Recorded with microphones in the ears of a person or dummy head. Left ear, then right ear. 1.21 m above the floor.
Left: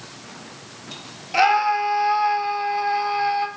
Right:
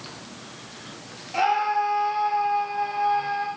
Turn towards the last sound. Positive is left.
turn(degrees=40)  # may be behind; listen again after turning